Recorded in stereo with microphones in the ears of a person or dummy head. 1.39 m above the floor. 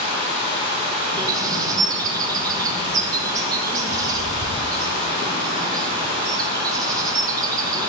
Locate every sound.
0.0 s running water: 30° right (ahead or behind), 1.0 m
1.2 s a bird: 20° right (ahead or behind), 0.5 m